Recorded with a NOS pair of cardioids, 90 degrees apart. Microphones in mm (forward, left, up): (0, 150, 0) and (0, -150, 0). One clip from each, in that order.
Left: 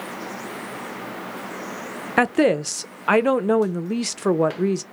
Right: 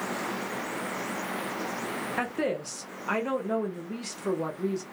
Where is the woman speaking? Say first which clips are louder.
Left 13 dB; 55° left, 0.5 m.